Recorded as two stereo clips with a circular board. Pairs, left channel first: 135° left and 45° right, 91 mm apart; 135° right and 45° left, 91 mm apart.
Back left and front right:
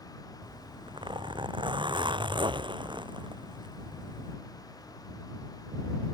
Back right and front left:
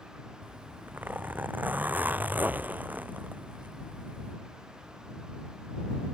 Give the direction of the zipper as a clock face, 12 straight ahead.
1 o'clock.